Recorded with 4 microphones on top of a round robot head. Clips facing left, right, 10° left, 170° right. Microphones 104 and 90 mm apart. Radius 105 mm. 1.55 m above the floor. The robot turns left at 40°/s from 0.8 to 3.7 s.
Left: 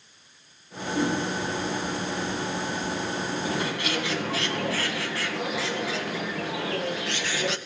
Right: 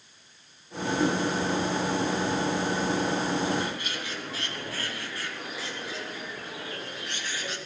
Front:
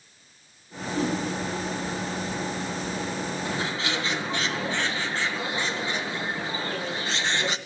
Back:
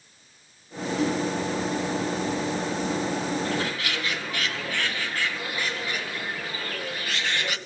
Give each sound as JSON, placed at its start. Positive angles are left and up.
{"t": 0.9, "sound": "a whoosh", "azimuth_deg": 70, "distance_m": 7.0}
{"t": 3.5, "sound": "a bird", "azimuth_deg": 85, "distance_m": 2.0}